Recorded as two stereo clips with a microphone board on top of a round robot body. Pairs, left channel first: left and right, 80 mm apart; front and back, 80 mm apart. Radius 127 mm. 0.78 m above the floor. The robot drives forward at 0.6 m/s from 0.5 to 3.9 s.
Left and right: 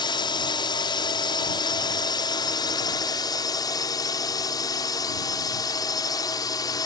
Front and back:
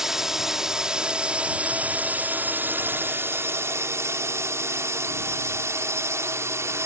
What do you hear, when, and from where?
0.0 s a drone: 95° left; by 6.9 s 125° left